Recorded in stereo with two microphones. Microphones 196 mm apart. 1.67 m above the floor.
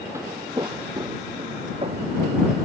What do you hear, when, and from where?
0.1 s footsteps: 15° right (ahead or behind); by 2.4 s 35° right (ahead or behind)